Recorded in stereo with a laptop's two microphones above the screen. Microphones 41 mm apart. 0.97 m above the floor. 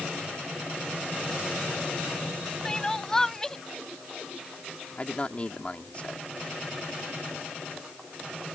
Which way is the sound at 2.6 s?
15° left (ahead or behind).